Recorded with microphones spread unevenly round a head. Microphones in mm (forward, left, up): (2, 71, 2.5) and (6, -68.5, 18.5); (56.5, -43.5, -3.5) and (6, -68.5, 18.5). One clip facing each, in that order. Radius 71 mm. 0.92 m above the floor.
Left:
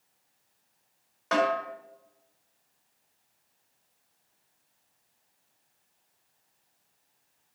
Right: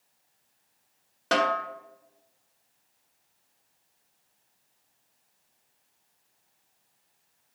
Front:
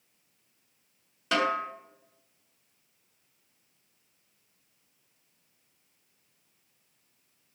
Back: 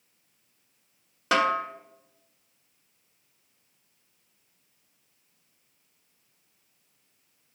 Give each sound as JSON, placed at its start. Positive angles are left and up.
{"t": 1.3, "sound": "a snare drum", "azimuth_deg": -140, "distance_m": 1.5}